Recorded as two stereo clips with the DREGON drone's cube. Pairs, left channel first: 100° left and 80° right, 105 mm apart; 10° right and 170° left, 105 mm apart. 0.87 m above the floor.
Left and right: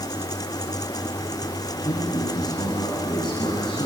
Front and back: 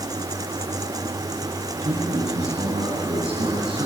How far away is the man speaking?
About 7 m.